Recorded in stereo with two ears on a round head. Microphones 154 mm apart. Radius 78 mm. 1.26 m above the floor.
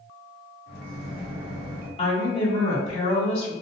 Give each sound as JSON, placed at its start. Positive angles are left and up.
{"t": 0.7, "sound": "a microwave", "side_deg": 65, "distance_m": 1.5}
{"t": 2.0, "sound": "a woman speaking", "side_deg": 35, "distance_m": 1.8}